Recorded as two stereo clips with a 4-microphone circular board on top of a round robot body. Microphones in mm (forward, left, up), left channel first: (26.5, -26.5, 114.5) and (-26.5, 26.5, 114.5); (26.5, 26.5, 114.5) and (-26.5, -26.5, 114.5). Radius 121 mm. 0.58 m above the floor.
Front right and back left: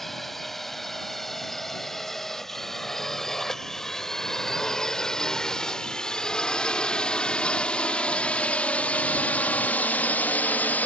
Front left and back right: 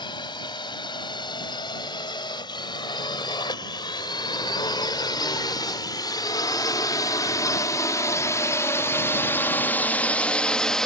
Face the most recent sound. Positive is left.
turn(degrees=-30)